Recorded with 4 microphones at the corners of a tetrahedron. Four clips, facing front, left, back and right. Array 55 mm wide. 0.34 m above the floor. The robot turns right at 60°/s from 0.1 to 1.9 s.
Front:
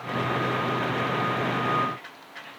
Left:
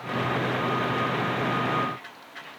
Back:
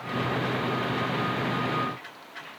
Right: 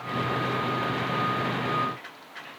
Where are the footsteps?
I don't hear footsteps.